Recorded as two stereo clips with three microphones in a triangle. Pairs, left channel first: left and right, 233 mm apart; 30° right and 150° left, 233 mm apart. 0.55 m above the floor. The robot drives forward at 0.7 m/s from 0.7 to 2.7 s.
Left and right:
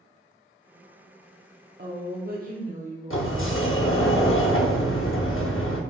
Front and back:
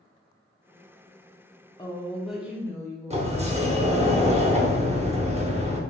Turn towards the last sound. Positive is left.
turn(degrees=95)